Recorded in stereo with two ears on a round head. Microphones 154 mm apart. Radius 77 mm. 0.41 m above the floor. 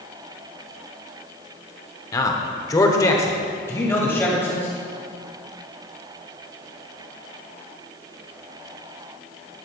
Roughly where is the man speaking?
Centre.